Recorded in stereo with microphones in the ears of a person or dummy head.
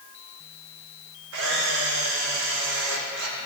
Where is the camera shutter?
60° right (ahead or behind), 1.5 m.